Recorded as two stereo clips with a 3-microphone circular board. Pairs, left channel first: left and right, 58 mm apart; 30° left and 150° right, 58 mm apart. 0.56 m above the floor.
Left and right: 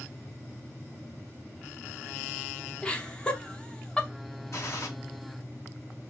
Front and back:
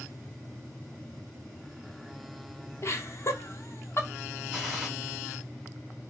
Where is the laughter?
20° left, 1.0 m.